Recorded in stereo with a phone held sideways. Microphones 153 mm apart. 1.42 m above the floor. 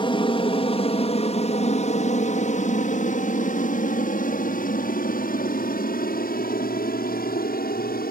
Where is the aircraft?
35° left (ahead or behind); by 8.1 s 75° left (ahead or behind).